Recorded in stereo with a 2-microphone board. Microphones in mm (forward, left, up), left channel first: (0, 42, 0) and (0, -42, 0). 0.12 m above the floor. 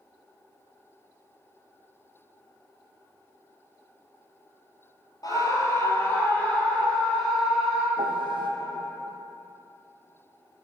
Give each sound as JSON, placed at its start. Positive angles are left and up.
{"t": 5.2, "sound": "a scream", "side_deg": 45, "distance_m": 2.5}
{"t": 8.0, "sound": "a piano", "side_deg": -80, "distance_m": 1.0}